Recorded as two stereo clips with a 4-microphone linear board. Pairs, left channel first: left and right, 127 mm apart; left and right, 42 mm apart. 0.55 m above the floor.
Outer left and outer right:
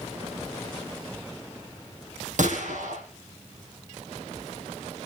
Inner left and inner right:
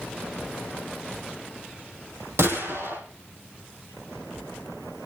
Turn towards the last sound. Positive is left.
turn(degrees=-75)  # may be behind; listen again after turning